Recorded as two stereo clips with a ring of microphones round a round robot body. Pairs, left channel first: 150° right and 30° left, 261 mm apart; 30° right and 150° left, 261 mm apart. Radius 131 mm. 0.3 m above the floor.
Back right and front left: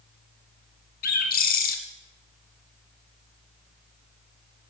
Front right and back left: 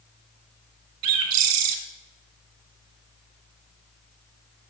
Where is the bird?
150° left, 1.4 m.